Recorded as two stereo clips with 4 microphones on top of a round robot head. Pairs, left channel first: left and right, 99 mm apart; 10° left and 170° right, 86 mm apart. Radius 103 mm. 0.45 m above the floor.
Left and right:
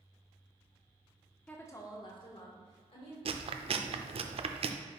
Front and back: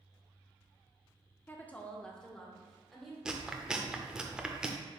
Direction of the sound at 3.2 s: 90° right.